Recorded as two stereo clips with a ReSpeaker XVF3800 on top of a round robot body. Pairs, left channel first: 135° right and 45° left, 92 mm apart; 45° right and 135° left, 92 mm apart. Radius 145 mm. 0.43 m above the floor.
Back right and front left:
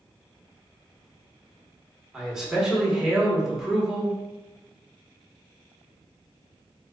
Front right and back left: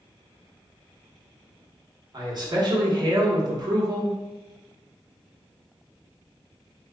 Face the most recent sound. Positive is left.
turn(degrees=125)